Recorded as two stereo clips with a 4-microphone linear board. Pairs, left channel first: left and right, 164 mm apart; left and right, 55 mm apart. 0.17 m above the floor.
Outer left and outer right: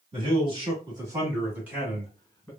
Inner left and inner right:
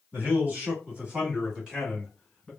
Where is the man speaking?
35° right (ahead or behind), 2.0 m; by 2.5 s 5° left (ahead or behind), 1.8 m.